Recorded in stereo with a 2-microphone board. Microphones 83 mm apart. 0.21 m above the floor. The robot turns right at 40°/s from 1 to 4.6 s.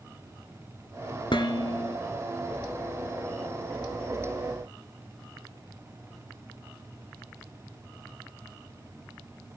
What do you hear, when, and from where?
1.3 s dishes clattering: 70° left (ahead or behind), 1.9 m; by 2.0 s 60° left (ahead or behind), 1.9 m